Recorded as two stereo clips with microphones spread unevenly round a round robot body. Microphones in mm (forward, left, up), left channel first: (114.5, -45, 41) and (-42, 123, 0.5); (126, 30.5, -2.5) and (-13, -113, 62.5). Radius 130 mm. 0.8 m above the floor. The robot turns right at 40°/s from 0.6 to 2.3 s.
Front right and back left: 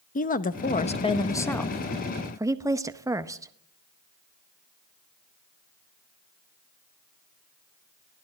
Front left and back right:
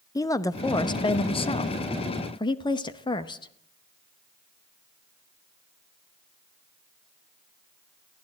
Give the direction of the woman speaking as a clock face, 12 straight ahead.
12 o'clock.